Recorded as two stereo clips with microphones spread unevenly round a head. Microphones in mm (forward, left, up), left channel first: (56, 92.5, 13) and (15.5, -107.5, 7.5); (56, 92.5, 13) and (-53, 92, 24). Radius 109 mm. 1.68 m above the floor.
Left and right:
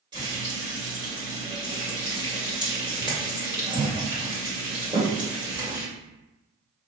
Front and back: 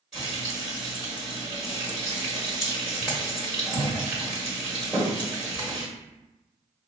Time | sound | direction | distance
0.1 | frying | 125° right | 1.5 m